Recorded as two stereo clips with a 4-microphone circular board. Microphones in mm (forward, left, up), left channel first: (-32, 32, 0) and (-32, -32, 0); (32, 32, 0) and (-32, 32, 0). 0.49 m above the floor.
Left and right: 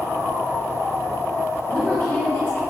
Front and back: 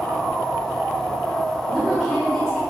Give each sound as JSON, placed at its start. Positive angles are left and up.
{"t": 1.7, "sound": "a woman speaking", "azimuth_deg": 75, "distance_m": 1.6}